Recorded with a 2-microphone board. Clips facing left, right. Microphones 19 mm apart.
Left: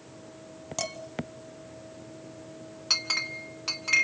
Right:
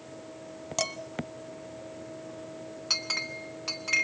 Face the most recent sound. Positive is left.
turn(degrees=10)  # may be behind; listen again after turning